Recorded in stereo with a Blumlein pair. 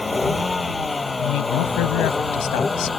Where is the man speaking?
40° left.